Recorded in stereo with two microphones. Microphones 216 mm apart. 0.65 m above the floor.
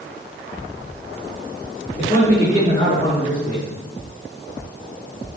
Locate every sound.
2.0 s a man speaking: 25° left (ahead or behind), 5.5 m; by 3.7 s 30° left (ahead or behind), 7 m